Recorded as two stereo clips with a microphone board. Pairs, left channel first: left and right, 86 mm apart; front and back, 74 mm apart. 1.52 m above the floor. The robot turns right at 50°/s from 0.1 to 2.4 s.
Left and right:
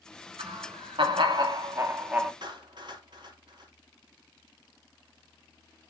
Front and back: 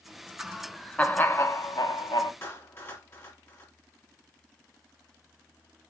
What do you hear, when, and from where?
0.4 s laughter: 105° right, 2 m; by 2.3 s 10° right, 2 m
2.4 s a clap: 60° right, 4 m